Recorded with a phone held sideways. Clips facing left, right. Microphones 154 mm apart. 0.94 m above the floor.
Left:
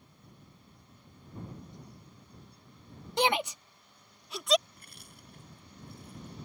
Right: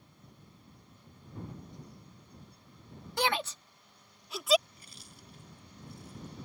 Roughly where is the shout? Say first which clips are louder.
Left 3 dB; left.